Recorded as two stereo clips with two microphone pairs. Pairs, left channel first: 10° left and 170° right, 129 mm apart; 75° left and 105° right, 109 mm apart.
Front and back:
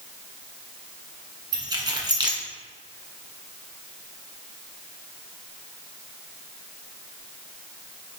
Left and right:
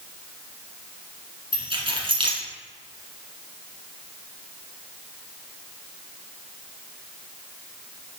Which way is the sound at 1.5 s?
125° right.